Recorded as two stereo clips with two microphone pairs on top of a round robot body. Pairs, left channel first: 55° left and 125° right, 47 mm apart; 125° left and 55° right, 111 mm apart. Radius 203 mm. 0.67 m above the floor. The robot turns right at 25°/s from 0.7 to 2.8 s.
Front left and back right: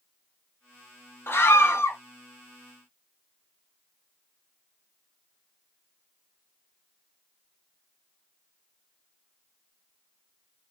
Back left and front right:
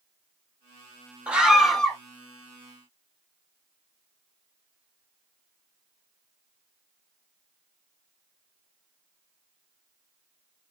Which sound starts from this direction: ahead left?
A scream, at 1.3 s.